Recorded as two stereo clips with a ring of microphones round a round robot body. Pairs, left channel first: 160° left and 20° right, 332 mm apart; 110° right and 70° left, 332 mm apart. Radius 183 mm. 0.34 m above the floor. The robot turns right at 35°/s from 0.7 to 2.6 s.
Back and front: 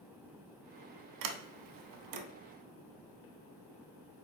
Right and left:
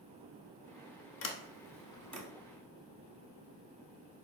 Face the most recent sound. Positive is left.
turn(degrees=-10)